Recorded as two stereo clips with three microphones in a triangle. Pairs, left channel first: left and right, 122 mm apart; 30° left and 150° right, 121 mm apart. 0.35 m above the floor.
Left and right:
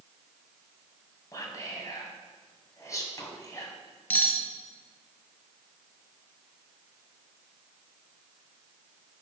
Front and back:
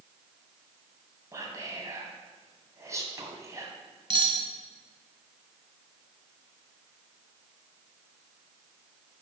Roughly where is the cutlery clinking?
Behind.